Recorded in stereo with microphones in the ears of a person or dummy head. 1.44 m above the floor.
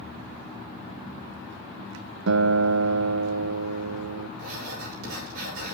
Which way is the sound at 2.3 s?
75° right (ahead or behind).